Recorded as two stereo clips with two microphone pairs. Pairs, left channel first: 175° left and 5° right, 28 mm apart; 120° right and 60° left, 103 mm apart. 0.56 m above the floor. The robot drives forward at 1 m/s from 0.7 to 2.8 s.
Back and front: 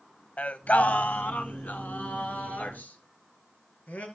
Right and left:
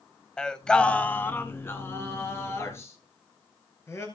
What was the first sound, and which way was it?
Singing, 155° left.